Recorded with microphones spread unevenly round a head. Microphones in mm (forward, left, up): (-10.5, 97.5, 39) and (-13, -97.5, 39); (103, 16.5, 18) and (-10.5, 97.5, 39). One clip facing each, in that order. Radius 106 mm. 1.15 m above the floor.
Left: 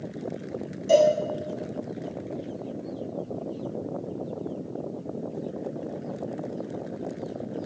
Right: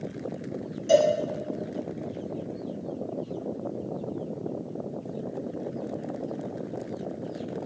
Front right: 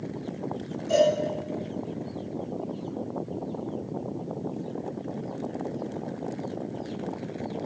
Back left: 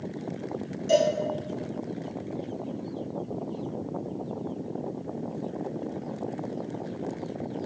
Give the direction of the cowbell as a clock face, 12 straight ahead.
6 o'clock.